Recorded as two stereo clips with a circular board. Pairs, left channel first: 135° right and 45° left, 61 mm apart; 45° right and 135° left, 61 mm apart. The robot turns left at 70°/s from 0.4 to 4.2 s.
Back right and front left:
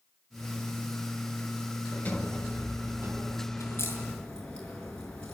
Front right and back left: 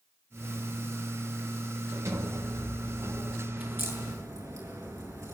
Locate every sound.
1.9 s a sliding door: straight behind, 5 m; by 3.5 s 75° left, 5 m
3.6 s a crack: 160° right, 6 m; by 5.3 s 155° left, 6 m